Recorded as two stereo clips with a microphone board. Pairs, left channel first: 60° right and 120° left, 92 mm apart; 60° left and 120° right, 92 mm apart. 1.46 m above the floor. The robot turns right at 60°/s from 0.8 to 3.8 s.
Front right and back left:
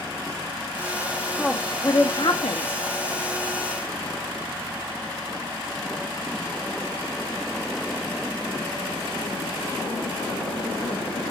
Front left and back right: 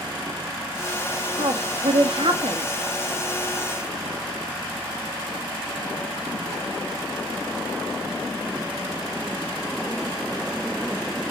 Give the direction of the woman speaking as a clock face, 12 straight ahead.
5 o'clock.